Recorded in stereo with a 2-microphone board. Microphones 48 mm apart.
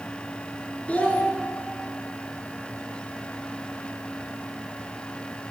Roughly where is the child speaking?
Left.